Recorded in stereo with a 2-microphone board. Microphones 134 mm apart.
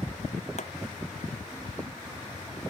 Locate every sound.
0.6 s a pop: 60° left (ahead or behind)